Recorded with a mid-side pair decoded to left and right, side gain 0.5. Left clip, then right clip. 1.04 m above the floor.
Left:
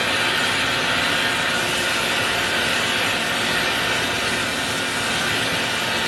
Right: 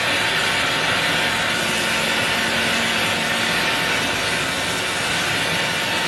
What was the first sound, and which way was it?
A fan, 10° right.